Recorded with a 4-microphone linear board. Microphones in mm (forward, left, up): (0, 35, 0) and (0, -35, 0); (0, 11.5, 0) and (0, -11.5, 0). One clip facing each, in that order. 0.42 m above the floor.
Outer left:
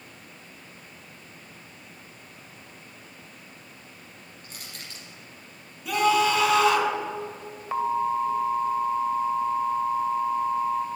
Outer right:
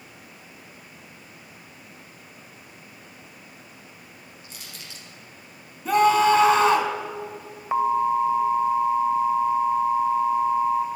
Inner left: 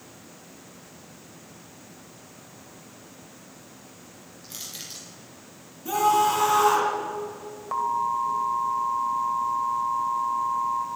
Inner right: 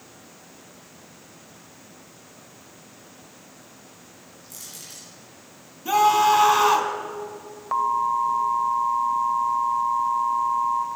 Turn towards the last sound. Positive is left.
turn(degrees=-20)  # may be behind; listen again after turning